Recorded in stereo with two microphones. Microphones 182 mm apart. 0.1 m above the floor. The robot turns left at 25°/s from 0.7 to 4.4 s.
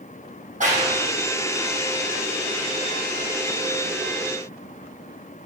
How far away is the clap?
About 4.5 m.